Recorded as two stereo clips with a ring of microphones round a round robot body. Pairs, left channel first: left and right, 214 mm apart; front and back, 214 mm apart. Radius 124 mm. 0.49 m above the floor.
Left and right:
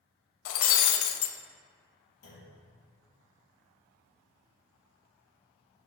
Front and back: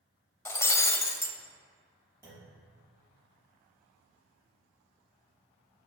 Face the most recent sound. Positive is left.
turn(degrees=100)